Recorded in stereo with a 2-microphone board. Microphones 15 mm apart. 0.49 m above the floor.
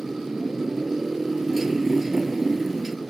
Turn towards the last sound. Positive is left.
turn(degrees=-20)  # may be behind; listen again after turning